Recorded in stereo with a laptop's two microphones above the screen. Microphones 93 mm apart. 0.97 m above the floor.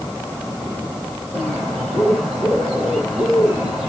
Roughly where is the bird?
Centre.